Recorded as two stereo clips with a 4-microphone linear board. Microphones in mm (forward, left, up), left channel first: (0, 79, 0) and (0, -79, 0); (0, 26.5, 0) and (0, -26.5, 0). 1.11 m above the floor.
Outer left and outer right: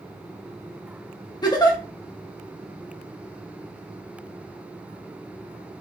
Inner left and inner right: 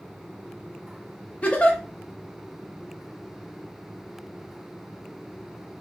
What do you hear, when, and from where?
1.4 s a giggle: 25° left (ahead or behind), 0.8 m